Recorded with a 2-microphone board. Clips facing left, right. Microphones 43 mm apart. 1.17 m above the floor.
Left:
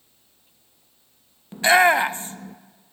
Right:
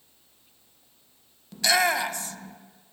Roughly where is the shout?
Left.